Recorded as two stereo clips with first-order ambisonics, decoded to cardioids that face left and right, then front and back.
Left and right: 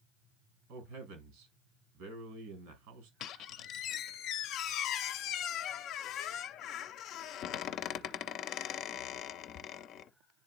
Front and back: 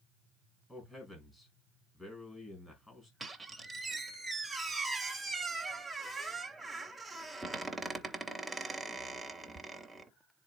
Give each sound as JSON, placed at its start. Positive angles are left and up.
{"t": 0.7, "sound": "a man speaking", "azimuth_deg": -75, "distance_m": 4.0}
{"t": 3.2, "sound": "a squeak", "azimuth_deg": 95, "distance_m": 0.7}